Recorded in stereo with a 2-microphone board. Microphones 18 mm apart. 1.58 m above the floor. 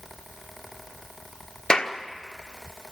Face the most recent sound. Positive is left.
turn(degrees=50)  # may be behind; listen again after turning